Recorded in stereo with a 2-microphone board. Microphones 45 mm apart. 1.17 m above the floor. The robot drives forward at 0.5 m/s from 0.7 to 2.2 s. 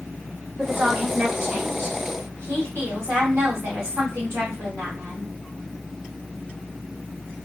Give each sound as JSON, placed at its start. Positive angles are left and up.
{"t": 0.6, "sound": "a woman speaking", "side_deg": -50, "distance_m": 2.5}